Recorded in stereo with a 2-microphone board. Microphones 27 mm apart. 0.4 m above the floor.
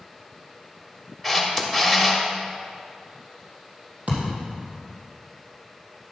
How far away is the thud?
About 3 m.